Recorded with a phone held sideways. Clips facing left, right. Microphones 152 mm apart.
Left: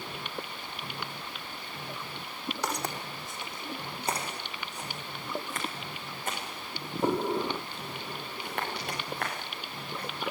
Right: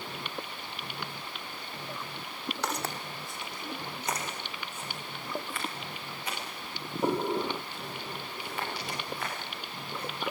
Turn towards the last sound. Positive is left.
turn(degrees=60)  # may be behind; listen again after turning